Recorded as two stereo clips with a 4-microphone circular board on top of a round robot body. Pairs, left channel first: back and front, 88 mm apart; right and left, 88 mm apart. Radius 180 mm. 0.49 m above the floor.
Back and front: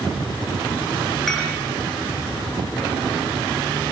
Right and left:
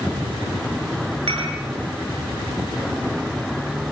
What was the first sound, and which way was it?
Dishes clattering, 95° left.